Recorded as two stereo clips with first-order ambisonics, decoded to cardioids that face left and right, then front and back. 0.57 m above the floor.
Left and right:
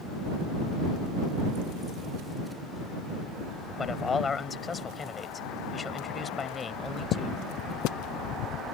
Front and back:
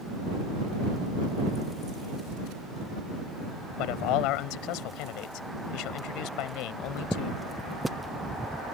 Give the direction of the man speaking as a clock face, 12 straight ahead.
11 o'clock.